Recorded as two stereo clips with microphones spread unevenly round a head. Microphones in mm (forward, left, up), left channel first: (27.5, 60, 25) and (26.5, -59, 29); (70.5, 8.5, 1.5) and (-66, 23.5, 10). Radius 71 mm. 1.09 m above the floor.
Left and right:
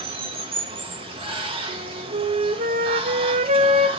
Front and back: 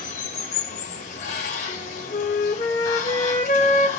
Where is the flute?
55° right, 0.8 m.